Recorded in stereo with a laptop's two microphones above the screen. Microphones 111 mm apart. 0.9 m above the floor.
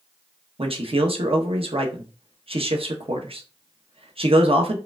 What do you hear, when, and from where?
0.6 s a man speaking: 60° right (ahead or behind), 0.8 m